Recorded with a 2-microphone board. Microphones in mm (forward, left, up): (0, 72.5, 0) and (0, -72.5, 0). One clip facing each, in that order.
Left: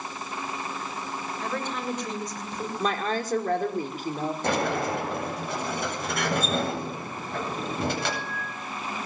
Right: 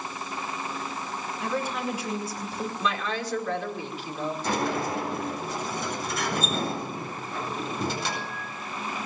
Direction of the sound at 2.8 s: 45° left (ahead or behind).